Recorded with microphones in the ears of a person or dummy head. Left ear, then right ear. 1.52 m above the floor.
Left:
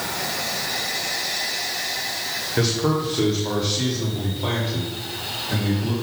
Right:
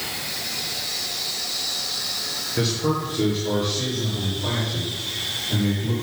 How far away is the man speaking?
About 1.1 m.